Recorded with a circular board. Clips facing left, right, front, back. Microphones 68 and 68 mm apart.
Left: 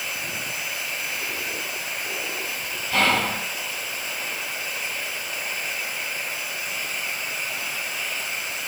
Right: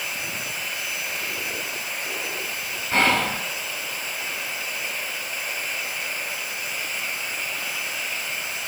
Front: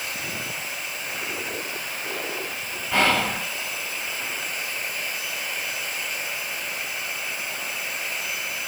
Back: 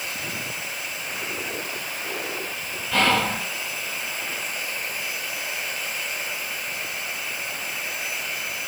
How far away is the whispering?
About 1.7 m.